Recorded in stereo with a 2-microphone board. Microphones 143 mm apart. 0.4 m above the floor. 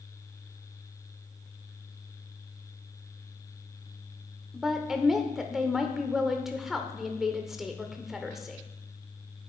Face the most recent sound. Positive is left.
turn(degrees=0)  # may be behind; listen again after turning